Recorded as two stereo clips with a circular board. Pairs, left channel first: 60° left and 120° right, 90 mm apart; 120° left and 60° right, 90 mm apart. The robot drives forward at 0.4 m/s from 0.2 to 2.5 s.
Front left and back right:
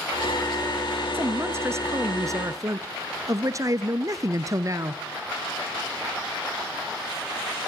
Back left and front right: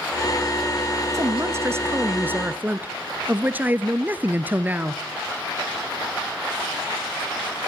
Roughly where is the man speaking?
Right.